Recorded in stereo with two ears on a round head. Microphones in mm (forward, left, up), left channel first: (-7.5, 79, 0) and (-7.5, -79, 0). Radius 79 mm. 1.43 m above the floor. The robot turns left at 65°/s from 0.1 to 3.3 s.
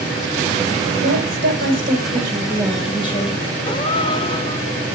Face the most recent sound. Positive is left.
turn(degrees=30)  # may be behind; listen again after turning